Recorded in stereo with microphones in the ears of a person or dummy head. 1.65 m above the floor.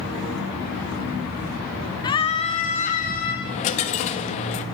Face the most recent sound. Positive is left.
turn(degrees=35)  # may be behind; listen again after turning